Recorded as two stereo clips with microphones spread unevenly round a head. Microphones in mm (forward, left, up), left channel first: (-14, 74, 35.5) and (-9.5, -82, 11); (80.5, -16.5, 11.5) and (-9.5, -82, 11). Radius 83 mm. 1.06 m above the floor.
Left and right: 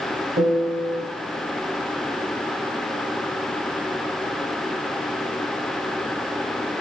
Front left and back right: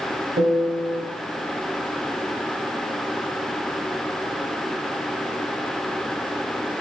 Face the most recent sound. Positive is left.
turn(degrees=-140)